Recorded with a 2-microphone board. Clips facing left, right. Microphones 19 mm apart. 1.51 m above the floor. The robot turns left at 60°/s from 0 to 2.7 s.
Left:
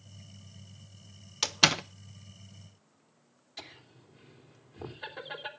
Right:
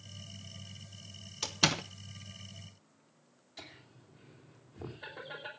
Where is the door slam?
35° left (ahead or behind), 0.5 m; by 1.8 s 15° left (ahead or behind), 0.5 m.